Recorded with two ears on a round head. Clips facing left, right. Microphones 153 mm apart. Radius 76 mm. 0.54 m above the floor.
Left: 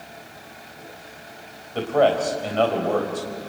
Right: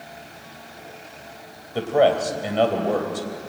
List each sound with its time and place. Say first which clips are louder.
1.8 s a man speaking: right 1 dB; 10° right (ahead or behind), 3 m